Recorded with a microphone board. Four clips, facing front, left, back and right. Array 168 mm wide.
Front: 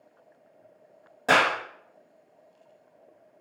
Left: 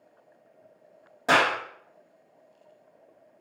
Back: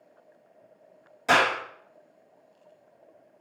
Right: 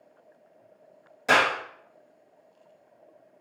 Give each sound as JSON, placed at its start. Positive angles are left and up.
{"t": 1.3, "sound": "a clap", "azimuth_deg": 40, "distance_m": 2.0}